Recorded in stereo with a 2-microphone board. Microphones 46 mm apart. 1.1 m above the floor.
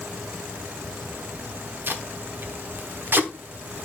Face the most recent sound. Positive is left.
turn(degrees=-50)  # may be behind; listen again after turning